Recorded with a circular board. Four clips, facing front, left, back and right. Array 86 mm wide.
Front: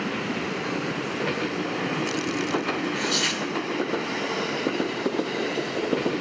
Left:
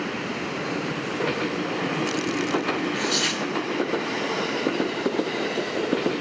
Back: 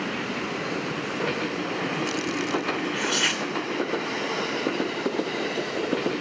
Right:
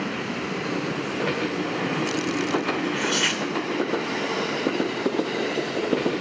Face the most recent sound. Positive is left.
turn(degrees=-130)